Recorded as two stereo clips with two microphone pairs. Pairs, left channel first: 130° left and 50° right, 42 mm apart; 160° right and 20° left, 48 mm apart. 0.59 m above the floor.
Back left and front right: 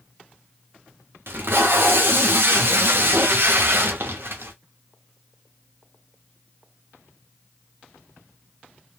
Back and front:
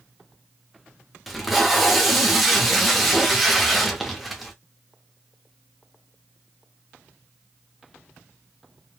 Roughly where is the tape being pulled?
Right.